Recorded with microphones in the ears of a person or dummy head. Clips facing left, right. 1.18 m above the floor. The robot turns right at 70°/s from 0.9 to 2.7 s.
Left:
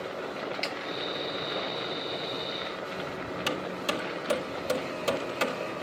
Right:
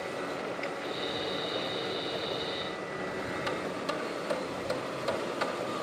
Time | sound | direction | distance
0.6 | a snare drum | 55° left (ahead or behind) | ?
3.5 | hammering | 40° left (ahead or behind) | ?